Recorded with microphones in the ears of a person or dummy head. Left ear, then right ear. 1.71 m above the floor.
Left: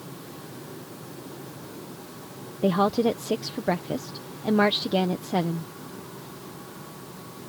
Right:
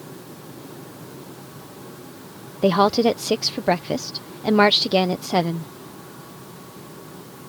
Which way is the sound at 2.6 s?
35° right (ahead or behind).